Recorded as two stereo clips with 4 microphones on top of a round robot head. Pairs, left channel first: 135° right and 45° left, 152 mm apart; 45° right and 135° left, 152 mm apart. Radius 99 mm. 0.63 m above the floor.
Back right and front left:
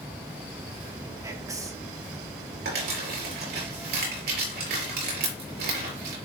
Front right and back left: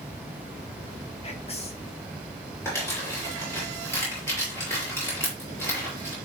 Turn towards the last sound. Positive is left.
turn(degrees=30)